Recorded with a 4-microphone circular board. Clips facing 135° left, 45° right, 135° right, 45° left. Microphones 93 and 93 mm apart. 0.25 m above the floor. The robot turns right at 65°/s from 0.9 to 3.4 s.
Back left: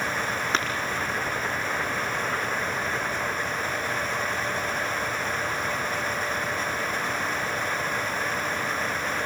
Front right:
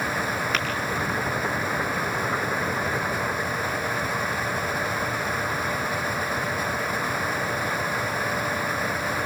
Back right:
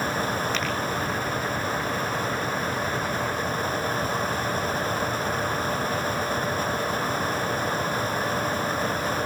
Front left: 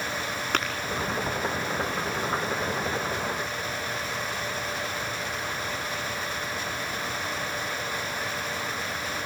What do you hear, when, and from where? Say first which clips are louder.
0.5 s tapping: back left 4 dB, front left 1 dB; 75° left, 5.5 m